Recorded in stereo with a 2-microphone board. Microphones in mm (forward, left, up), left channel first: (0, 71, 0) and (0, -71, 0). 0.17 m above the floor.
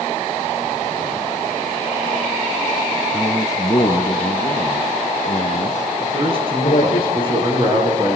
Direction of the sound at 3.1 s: 20° left (ahead or behind).